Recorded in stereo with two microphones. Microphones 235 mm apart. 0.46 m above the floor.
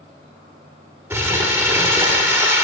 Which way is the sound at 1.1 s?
10° right (ahead or behind).